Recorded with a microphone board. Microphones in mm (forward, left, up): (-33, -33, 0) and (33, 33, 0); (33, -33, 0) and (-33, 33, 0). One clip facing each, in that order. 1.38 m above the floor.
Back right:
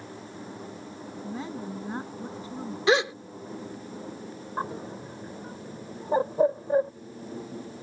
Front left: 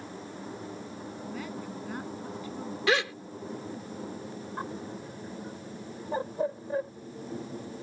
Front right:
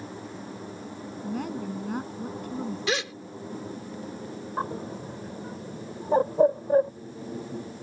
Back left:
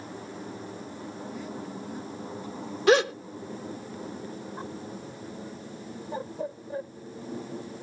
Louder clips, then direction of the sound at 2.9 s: Back right 5 dB, back left 12 dB; 160° left.